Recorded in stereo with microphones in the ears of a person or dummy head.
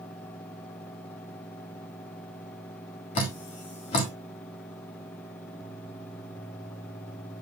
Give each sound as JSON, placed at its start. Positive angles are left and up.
{"t": 3.1, "sound": "dripping", "side_deg": 40, "distance_m": 1.6}